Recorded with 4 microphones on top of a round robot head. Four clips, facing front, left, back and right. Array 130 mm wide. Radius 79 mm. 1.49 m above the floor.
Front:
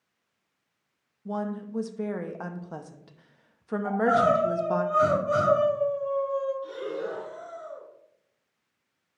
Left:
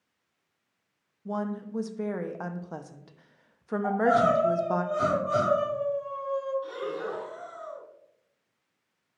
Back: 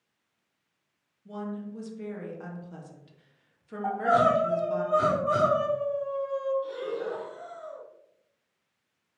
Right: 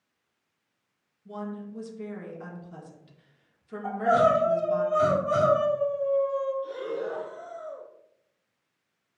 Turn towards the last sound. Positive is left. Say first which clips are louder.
# right 1 dB, even
turn(degrees=90)